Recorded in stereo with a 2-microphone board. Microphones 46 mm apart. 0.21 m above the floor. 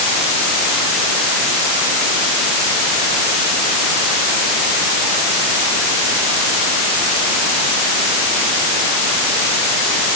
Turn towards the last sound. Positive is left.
No sound to turn to.